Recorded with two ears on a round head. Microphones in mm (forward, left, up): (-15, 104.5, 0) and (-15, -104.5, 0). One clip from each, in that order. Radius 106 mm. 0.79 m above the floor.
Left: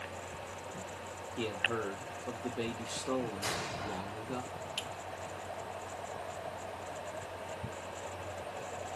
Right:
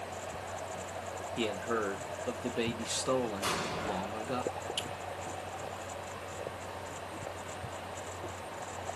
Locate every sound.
1.4 s a man speaking: 20° right (ahead or behind), 0.6 m
3.4 s an explosion: 5° left (ahead or behind), 1.8 m
4.8 s a finger snap: 20° right (ahead or behind), 1.4 m